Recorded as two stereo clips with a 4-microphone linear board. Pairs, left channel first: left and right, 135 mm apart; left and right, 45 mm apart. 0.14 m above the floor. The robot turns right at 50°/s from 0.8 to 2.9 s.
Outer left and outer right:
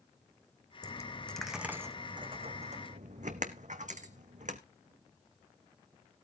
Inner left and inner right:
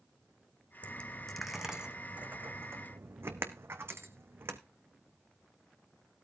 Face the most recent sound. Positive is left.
turn(degrees=-75)  # may be behind; listen again after turning